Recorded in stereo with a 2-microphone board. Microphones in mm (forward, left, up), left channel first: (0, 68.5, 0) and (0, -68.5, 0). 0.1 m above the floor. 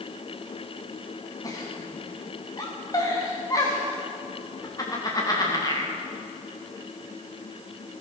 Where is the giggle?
25° left (ahead or behind), 6 m.